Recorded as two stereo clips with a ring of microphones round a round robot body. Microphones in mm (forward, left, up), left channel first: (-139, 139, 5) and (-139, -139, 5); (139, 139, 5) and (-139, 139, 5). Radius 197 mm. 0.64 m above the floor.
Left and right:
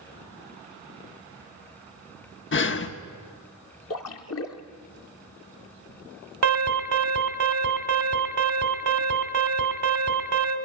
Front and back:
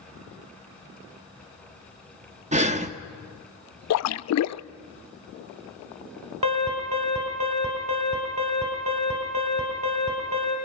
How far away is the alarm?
About 2.5 m.